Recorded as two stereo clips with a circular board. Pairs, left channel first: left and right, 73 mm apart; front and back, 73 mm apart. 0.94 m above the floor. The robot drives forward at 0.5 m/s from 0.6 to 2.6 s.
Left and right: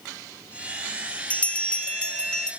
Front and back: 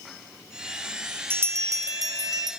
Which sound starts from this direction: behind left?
A bell, at 1.3 s.